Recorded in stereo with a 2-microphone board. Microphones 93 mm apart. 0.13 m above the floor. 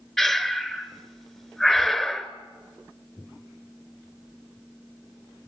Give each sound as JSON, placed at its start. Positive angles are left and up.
{"t": 0.2, "sound": "breathing", "side_deg": 5, "distance_m": 0.8}